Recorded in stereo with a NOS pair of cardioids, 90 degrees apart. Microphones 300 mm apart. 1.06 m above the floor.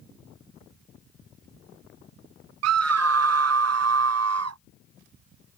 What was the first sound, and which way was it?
A scream, 60° right.